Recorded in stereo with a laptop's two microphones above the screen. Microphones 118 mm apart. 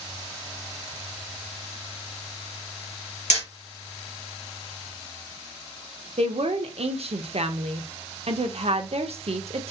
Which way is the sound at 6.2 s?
60° right (ahead or behind).